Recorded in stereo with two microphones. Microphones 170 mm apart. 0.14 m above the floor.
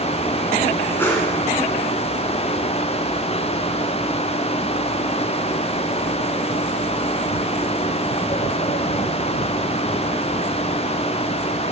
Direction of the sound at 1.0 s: 15° left (ahead or behind).